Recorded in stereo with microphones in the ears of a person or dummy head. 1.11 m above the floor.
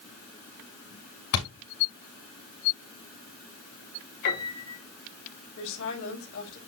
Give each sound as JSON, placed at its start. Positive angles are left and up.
{"t": 1.3, "sound": "a thud", "side_deg": 80, "distance_m": 6.0}
{"t": 4.2, "sound": "a piano", "side_deg": 55, "distance_m": 3.5}
{"t": 5.6, "sound": "a woman speaking", "side_deg": 80, "distance_m": 5.5}